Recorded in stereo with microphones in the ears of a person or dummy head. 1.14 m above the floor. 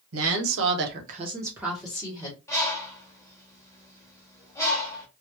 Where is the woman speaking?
70° right (ahead or behind), 1.0 m; by 2.4 s 20° left (ahead or behind), 1.1 m.